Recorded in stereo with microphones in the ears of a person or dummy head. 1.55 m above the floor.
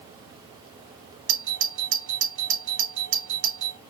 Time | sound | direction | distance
1.3 | a doorbell | 55° right (ahead or behind) | 0.7 m